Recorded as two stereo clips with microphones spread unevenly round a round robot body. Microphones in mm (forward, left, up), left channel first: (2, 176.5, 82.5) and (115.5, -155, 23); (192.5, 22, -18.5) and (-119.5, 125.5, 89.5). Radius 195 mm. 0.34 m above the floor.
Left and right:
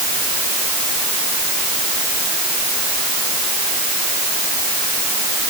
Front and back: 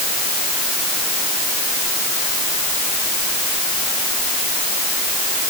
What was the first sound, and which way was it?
Only background noise.